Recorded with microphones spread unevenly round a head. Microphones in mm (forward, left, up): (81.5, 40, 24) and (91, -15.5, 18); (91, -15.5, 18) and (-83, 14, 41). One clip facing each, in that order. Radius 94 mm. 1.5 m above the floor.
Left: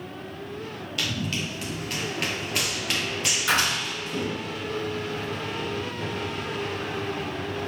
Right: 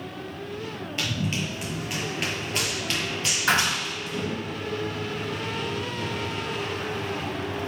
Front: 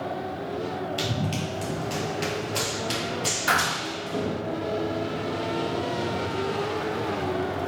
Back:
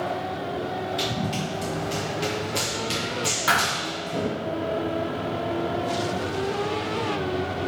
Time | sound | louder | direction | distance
1.0 | running footsteps | even, back 1 dB | 45° right | 1.6 m
3.5 | a thud | right 1 dB, even | 110° right | 1.6 m